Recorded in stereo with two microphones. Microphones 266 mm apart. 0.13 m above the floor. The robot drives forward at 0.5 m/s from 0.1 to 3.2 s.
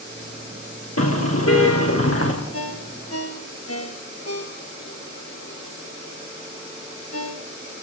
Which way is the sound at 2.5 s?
60° left (ahead or behind).